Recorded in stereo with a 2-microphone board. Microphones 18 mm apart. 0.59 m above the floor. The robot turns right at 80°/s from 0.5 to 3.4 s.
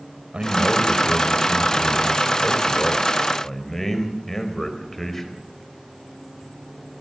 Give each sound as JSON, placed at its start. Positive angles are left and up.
{"t": 0.3, "sound": "a man speaking", "azimuth_deg": -70, "distance_m": 3.5}